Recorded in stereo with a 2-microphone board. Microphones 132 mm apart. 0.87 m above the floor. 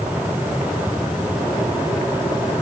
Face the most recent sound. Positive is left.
No sound to turn to.